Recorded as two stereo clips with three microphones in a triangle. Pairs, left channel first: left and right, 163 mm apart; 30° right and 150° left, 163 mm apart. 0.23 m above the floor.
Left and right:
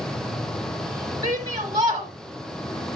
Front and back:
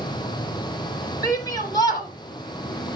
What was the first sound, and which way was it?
A shout, 60° right.